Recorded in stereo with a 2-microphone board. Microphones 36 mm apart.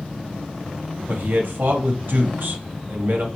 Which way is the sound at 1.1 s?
70° right (ahead or behind).